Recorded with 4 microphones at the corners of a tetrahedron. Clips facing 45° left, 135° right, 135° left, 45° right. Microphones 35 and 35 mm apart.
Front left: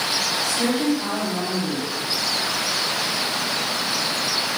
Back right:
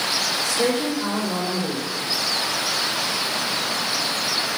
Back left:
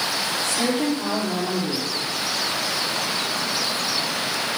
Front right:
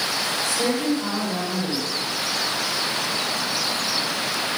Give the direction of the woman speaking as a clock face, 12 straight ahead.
8 o'clock.